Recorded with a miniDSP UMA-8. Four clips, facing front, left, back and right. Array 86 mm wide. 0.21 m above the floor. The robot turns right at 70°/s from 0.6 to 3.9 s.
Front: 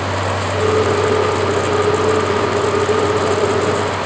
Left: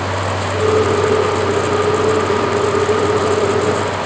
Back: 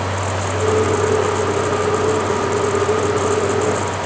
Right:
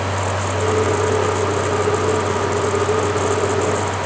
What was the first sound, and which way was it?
Only background noise.